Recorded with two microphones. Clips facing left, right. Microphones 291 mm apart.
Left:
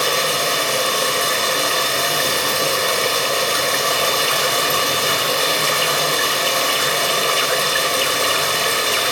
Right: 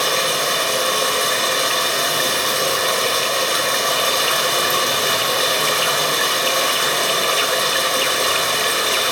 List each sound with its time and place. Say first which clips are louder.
0.0 s running water: left 1 dB; 30° left (ahead or behind), 0.8 m